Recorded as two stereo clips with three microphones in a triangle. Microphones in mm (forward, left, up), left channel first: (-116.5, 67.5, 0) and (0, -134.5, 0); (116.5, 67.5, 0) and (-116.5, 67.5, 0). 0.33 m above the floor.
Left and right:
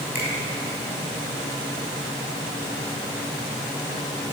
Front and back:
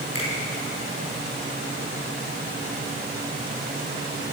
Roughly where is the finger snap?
Behind.